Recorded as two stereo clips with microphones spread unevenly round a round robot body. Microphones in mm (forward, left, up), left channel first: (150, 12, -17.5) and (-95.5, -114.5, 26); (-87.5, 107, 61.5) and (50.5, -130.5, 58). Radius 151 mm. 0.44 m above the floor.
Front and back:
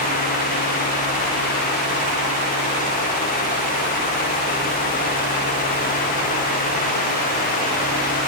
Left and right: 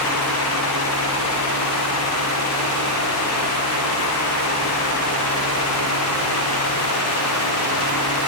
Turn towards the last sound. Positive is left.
No sound to turn to.